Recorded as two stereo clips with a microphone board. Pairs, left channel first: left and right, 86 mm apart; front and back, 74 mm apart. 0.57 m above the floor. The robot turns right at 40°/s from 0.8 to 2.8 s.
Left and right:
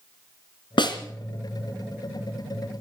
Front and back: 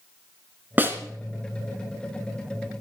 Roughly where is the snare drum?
Behind left.